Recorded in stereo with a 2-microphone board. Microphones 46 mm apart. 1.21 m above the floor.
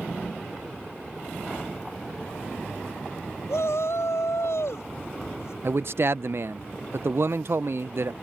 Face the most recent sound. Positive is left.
turn(degrees=-60)  # may be behind; listen again after turning